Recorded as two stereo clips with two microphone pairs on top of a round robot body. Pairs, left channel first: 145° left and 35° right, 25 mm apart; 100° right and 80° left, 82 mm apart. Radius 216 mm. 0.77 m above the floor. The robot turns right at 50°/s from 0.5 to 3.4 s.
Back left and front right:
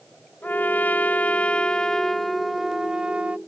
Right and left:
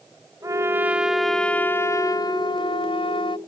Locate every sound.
0.4 s a trumpet: 135° left; by 3.4 s 80° right